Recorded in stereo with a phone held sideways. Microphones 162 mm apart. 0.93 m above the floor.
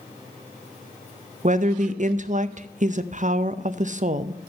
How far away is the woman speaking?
About 0.5 m.